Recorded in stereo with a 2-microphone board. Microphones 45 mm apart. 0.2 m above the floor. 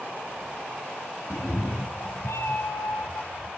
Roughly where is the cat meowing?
Left.